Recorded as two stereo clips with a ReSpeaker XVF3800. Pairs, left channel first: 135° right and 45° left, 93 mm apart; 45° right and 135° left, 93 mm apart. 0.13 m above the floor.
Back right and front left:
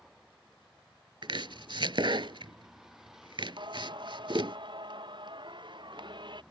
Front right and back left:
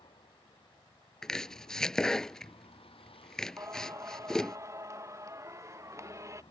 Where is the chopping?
40° left.